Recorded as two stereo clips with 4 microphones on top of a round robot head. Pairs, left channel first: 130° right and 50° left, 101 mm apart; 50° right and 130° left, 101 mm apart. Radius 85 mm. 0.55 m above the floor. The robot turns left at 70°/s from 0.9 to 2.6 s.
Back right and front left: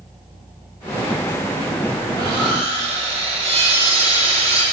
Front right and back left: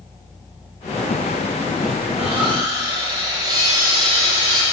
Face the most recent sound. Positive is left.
turn(degrees=70)